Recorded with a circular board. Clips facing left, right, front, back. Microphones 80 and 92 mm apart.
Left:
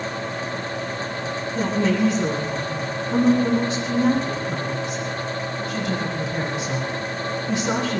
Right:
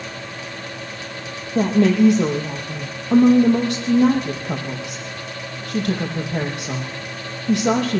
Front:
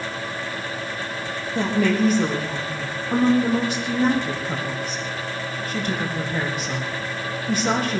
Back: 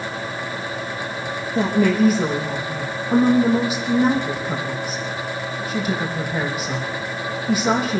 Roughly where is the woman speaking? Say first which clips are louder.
Right 6 dB, back 3 dB; right.